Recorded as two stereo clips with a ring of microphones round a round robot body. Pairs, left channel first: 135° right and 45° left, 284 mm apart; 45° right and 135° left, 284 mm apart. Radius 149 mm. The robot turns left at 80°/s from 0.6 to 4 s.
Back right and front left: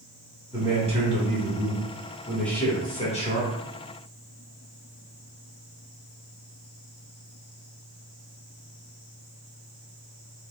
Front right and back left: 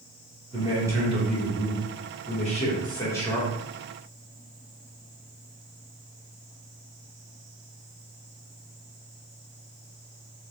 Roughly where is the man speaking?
Left.